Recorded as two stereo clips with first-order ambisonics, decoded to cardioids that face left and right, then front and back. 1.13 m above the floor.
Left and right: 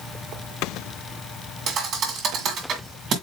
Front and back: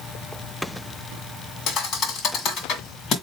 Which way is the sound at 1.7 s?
45° right.